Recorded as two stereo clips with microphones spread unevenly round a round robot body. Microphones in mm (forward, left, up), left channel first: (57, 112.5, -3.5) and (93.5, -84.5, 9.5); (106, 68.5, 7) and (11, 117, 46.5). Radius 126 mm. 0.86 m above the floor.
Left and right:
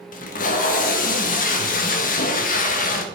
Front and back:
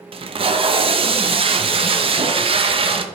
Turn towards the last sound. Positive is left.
turn(degrees=120)